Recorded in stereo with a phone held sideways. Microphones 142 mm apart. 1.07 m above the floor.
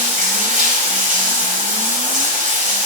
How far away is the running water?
About 1.6 m.